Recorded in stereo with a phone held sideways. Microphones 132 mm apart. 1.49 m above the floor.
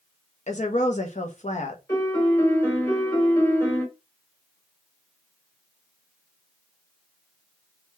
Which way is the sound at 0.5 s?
60° left (ahead or behind).